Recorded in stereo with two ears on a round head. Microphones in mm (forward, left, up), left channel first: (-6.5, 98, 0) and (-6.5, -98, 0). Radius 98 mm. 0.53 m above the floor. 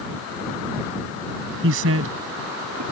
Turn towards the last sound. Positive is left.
turn(degrees=-75)  # may be behind; listen again after turning